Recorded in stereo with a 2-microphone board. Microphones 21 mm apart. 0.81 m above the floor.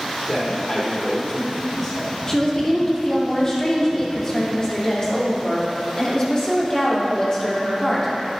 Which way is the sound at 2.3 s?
30° left (ahead or behind).